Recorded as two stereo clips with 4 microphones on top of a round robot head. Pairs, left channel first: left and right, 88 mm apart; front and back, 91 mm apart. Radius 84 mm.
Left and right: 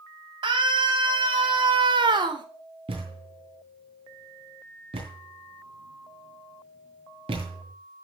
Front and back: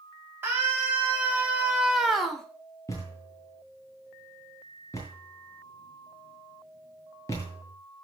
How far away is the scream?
About 4.5 m.